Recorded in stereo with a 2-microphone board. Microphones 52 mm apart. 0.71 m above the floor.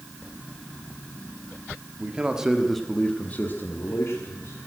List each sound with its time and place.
2.0 s a man speaking: 25° right (ahead or behind), 1.7 m; by 4.6 s 65° left (ahead or behind), 2 m